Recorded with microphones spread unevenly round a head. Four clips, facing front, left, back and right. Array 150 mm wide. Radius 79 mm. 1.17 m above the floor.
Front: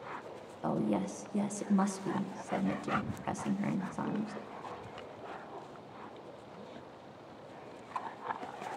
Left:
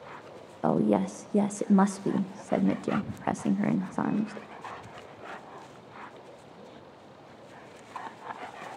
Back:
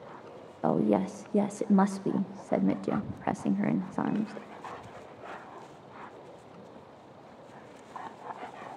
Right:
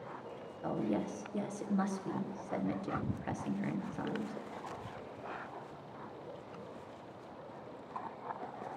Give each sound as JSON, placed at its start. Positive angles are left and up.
{"t": 0.6, "sound": "a woman speaking", "azimuth_deg": 130, "distance_m": 0.6}